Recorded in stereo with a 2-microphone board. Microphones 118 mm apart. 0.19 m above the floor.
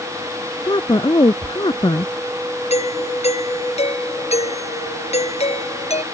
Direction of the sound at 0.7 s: 40° left (ahead or behind).